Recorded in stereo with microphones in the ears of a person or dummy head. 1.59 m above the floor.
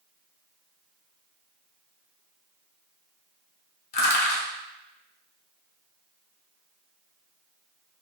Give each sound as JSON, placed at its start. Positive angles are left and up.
{"t": 3.9, "sound": "crushing", "side_deg": 45, "distance_m": 0.7}